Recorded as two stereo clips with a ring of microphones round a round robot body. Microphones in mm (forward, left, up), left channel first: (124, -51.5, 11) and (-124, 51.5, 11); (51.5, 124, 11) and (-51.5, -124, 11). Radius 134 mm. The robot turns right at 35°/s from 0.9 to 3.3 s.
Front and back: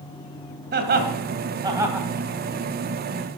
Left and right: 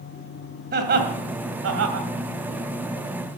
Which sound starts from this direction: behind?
Laughter, at 0.7 s.